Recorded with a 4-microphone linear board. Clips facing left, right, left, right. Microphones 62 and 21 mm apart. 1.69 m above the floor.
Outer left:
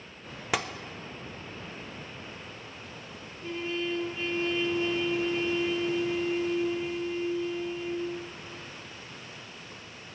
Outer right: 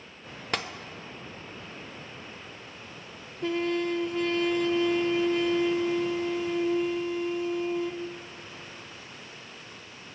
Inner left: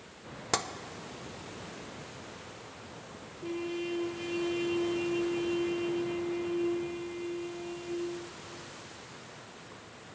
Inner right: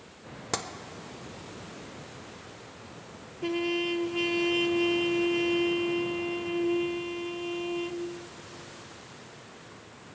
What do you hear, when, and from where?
0.5 s tapping: 5° left (ahead or behind), 0.5 m
3.4 s a trumpet: 75° right (ahead or behind), 0.7 m